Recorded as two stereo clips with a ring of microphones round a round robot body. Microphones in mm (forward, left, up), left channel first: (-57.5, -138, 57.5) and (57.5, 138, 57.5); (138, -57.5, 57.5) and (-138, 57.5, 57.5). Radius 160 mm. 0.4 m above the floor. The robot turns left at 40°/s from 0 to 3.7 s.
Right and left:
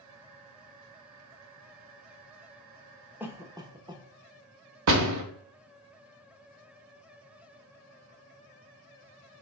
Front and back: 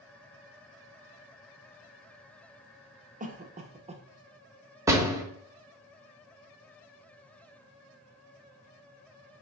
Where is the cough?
145° left, 0.8 m; by 4.0 s 125° left, 0.8 m.